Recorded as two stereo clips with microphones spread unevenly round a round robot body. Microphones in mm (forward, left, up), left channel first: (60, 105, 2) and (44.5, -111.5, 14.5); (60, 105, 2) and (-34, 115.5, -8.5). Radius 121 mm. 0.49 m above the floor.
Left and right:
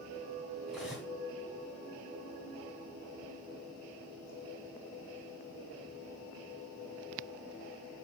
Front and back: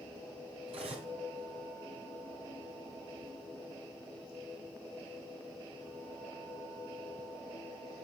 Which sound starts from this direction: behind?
Cutlery clinking, at 0.7 s.